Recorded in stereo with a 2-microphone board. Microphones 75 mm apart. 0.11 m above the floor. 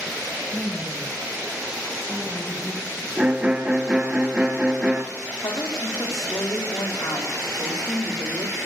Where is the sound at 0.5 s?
5° left (ahead or behind), 2 m.